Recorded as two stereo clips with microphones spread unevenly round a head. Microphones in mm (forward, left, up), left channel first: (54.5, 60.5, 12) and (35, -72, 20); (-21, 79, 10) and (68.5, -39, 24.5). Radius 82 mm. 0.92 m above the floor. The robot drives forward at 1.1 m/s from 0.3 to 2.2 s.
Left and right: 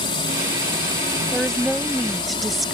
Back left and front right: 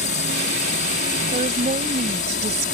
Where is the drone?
135° left.